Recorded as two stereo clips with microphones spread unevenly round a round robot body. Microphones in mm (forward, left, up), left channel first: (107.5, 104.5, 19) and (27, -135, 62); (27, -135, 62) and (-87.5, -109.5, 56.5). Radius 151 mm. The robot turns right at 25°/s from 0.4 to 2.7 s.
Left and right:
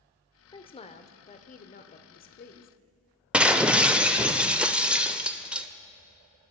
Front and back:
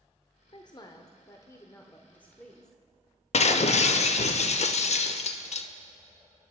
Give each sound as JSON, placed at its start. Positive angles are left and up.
{"t": 0.5, "sound": "a woman speaking", "azimuth_deg": 20, "distance_m": 1.0}
{"t": 3.3, "sound": "breaking glass", "azimuth_deg": -15, "distance_m": 0.7}